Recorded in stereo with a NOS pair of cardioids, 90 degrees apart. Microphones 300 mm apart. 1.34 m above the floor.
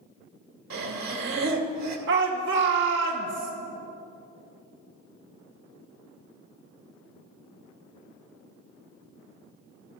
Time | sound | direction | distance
0.7 | breathing | 60° right | 1.9 m
2.1 | a shout | 40° right | 1.4 m